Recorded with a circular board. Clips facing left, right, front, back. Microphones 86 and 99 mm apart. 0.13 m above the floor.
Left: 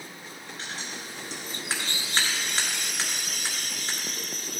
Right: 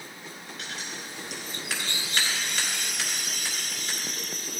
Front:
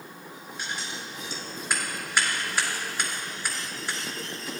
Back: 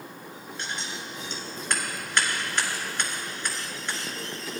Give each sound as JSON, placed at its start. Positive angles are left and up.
{"t": 0.6, "sound": "scissors", "azimuth_deg": 75, "distance_m": 2.0}